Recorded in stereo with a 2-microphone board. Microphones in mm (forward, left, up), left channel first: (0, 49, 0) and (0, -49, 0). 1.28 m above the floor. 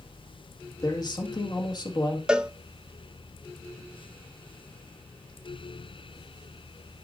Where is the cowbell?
10° right (ahead or behind), 0.7 m.